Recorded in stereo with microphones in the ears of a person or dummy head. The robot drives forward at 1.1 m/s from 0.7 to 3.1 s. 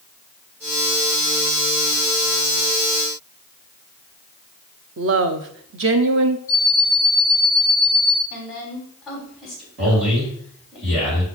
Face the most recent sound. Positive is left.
turn(degrees=-35)  # may be behind; listen again after turning